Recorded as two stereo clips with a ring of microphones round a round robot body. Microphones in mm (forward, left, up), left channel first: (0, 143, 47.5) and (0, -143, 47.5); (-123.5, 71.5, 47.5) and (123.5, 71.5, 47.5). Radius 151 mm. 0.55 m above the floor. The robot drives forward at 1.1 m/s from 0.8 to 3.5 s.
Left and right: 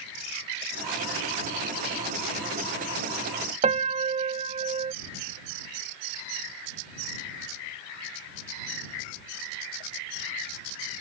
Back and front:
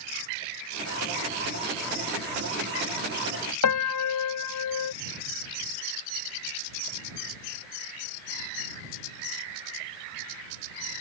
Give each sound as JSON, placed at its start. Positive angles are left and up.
{"t": 3.6, "sound": "a piano", "azimuth_deg": -160}